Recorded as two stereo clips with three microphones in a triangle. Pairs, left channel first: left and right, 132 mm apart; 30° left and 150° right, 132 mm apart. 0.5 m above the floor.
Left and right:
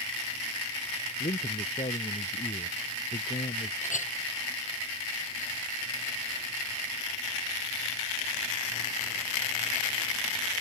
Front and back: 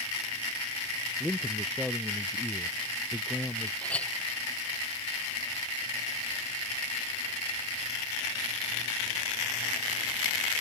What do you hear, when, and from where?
1.2 s a man speaking: 120° left; by 3.7 s 110° left
3.8 s a clink: 110° left